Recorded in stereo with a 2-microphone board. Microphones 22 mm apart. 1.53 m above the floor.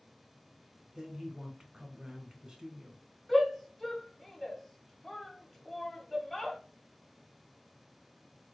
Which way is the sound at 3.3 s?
5° right (ahead or behind).